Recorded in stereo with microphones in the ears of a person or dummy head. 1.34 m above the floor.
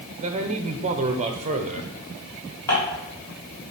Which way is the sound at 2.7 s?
20° left (ahead or behind).